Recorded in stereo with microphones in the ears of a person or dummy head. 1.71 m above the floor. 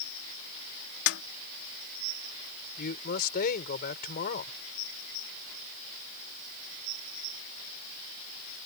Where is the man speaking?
50° left (ahead or behind).